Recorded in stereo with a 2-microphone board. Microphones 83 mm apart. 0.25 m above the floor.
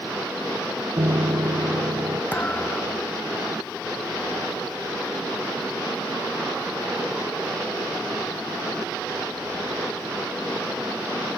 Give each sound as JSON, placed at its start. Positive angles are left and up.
{"t": 1.0, "sound": "a piano", "side_deg": -50}
{"t": 2.3, "sound": "a thud", "side_deg": 20}